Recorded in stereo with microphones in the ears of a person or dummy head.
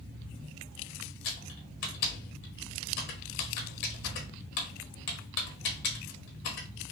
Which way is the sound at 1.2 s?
50° left (ahead or behind).